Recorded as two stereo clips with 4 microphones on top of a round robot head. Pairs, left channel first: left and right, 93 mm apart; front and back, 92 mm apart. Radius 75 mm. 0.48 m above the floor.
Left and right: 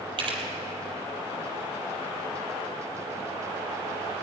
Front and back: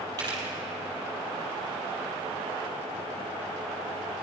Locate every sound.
0.2 s a camera shutter: 120° right, 4.5 m